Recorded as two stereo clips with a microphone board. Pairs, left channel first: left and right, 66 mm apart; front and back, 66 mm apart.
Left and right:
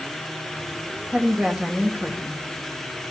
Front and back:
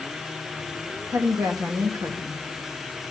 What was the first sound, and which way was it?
A woman speaking, 160° right.